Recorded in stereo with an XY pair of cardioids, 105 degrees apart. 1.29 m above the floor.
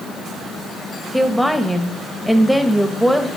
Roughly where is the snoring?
I don't hear snoring.